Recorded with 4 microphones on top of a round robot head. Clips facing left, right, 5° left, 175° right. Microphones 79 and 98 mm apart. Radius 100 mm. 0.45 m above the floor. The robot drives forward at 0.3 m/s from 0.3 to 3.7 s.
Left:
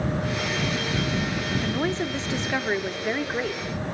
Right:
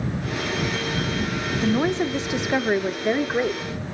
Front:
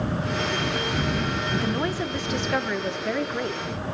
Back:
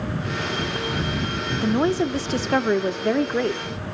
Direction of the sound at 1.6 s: 140° right.